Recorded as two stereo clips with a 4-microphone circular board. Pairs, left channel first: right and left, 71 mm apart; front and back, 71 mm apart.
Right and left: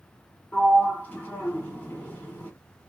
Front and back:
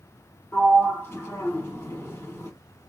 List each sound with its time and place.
0.5 s a sliding door: 35° right, 1.3 m